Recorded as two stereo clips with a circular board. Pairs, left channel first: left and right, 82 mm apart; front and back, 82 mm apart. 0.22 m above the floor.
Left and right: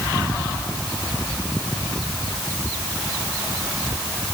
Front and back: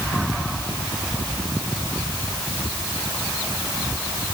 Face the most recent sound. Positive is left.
No sound to turn to.